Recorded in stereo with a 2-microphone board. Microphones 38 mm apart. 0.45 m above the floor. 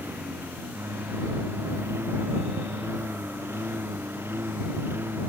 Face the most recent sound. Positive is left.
turn(degrees=-80)